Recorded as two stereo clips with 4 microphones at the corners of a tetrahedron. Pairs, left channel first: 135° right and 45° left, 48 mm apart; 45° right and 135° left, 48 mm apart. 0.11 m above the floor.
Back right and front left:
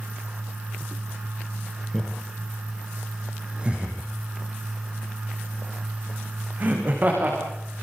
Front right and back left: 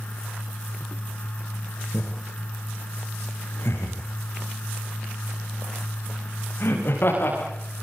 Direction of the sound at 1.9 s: 40° right.